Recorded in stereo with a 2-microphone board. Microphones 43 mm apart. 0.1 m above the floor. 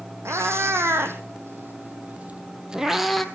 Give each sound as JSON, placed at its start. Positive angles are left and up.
{"t": 0.2, "sound": "a cat meowing", "side_deg": -75, "distance_m": 2.5}